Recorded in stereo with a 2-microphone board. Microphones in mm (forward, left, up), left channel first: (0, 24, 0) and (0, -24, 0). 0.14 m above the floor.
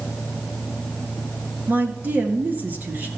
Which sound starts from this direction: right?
A woman speaking, at 1.7 s.